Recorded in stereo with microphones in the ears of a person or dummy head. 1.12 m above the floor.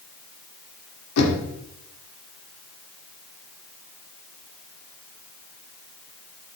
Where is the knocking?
85° left, 2.5 m.